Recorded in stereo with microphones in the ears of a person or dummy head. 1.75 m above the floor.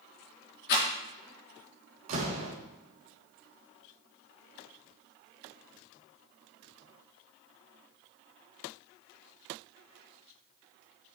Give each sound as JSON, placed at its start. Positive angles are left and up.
{"t": 0.7, "sound": "a rattle", "side_deg": 60, "distance_m": 4.5}
{"t": 2.1, "sound": "a door slam", "side_deg": -40, "distance_m": 2.0}